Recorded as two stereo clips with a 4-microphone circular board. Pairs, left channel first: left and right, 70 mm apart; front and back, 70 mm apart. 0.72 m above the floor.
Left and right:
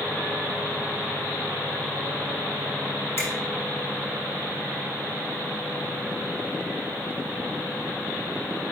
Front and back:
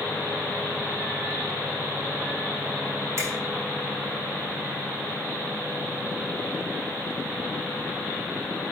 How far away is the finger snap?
About 2.5 m.